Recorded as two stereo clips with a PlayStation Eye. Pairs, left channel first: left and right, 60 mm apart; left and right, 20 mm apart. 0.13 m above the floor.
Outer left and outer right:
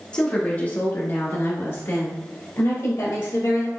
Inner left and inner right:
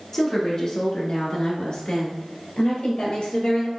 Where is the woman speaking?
15° left (ahead or behind), 1.1 m; by 3.7 s 65° left (ahead or behind), 2.5 m.